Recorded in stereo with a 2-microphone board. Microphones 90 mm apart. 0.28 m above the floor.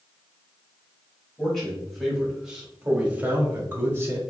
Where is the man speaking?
5° left (ahead or behind), 1.5 m; by 4.2 s 30° right (ahead or behind), 1.1 m.